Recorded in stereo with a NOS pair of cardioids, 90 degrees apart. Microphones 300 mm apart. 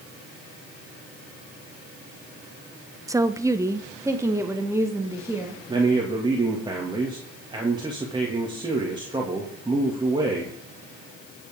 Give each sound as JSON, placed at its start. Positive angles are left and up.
{"t": 3.1, "sound": "a woman speaking", "azimuth_deg": -10, "distance_m": 0.6}
{"t": 5.7, "sound": "a man speaking", "azimuth_deg": -15, "distance_m": 2.5}